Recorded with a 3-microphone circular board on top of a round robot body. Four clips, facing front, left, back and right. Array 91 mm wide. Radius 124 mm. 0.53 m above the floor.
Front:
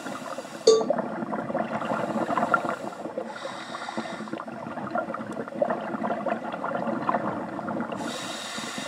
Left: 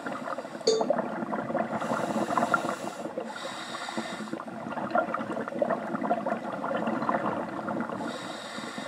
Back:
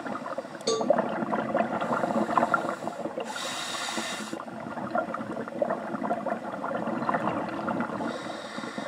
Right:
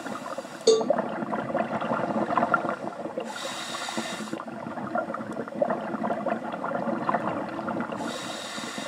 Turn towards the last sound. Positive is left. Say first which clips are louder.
# right 5 dB, front 9 dB
turn(degrees=-15)